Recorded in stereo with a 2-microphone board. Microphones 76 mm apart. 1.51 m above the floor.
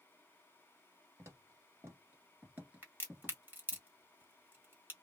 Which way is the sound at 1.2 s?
35° right (ahead or behind).